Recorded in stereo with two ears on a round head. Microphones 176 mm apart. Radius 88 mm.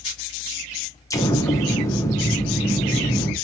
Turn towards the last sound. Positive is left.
turn(degrees=15)  # may be behind; listen again after turning